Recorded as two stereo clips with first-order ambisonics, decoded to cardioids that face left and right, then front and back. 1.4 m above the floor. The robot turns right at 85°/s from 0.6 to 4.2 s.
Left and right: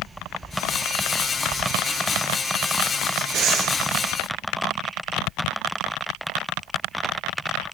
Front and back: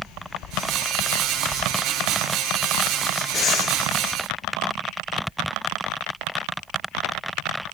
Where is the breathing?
60° right, 0.8 m; by 3.8 s 25° right, 0.8 m.